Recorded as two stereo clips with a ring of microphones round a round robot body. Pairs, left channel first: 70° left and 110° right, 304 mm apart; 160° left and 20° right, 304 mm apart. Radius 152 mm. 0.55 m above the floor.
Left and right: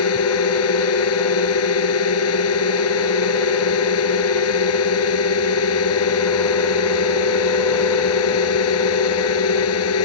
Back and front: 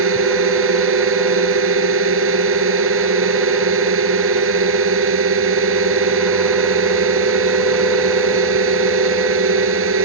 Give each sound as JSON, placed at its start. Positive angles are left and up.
{"t": 0.0, "sound": "a drone", "azimuth_deg": 25}